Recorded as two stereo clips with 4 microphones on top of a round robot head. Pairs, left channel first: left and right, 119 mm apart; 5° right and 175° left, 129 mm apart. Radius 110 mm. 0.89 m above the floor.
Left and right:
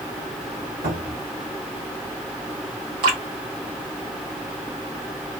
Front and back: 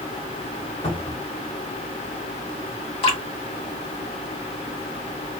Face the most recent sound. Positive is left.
turn(degrees=-45)